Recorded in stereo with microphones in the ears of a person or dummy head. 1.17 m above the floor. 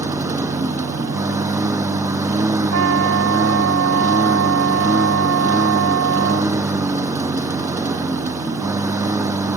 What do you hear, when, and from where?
0.0 s a lawn mower: 25° right (ahead or behind)
2.7 s a trumpet: 85° right